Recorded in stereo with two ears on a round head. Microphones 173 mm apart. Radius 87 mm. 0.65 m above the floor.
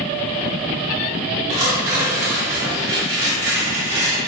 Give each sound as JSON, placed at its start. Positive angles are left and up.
{"t": 1.5, "sound": "tearing paper", "side_deg": -15, "distance_m": 1.4}